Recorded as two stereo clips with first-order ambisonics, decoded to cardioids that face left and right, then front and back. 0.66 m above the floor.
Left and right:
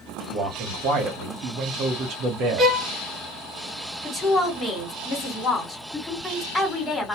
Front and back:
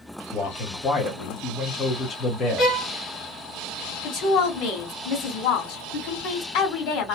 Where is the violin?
40° right, 1.3 m.